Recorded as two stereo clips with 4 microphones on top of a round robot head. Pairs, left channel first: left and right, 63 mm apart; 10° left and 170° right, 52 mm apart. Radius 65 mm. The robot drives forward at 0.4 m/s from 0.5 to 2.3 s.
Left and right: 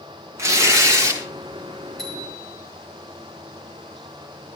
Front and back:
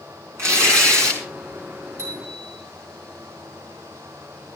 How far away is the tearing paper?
About 3.5 m.